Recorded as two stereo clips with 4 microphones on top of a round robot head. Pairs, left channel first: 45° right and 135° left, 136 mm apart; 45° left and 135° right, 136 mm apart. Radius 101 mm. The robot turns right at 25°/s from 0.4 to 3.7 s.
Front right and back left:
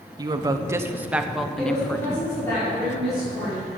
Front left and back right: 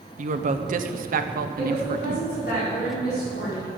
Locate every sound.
0.2 s a woman speaking: 165° right, 1.1 m; by 2.3 s 115° right, 1.1 m
1.6 s a woman speaking: 5° left, 5.5 m; by 3.7 s 60° left, 5.5 m